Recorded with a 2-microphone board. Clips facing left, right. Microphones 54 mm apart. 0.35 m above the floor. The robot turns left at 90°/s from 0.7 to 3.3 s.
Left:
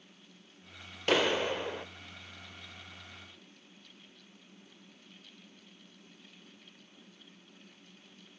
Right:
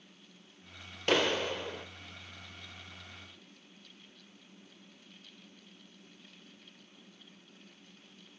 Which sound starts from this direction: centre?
A clap, at 1.1 s.